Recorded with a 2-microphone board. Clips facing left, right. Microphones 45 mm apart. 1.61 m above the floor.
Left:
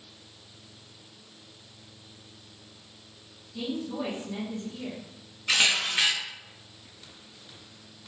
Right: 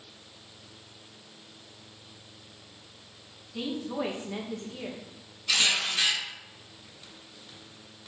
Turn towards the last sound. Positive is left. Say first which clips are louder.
# left 2 dB
turn(degrees=45)  # may be behind; listen again after turning